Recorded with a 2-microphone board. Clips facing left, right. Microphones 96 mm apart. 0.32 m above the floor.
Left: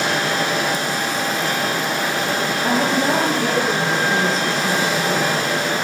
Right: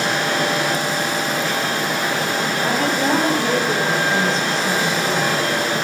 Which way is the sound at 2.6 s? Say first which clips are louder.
Left 2 dB; 35° left (ahead or behind).